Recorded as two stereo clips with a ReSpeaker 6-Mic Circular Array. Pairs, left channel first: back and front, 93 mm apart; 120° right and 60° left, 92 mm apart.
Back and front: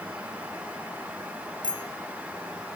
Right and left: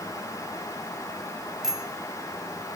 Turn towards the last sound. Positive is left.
turn(degrees=145)